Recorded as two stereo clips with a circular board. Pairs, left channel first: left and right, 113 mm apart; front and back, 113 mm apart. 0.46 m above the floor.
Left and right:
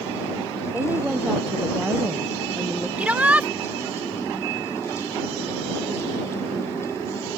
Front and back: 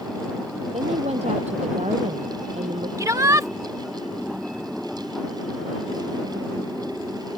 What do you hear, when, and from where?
0.7 s a woman speaking: 165° right; by 2.9 s 170° right
3.0 s a shout: 155° right